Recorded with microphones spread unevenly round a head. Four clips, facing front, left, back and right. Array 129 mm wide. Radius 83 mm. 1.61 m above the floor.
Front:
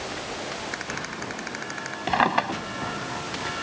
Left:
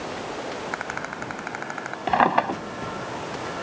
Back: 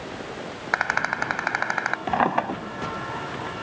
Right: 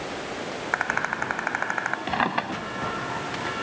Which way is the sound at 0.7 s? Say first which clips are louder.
Right 4 dB, back 9 dB; 150° right.